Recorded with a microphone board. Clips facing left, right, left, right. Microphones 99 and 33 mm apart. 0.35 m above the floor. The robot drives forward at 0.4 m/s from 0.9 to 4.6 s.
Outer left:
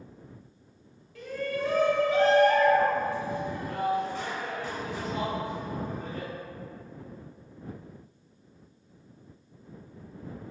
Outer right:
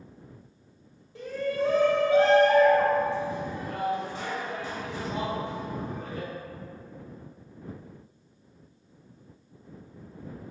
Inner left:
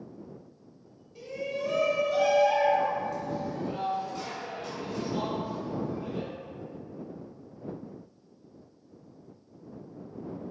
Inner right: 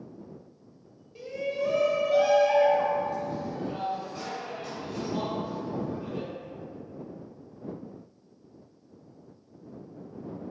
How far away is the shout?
About 1.0 m.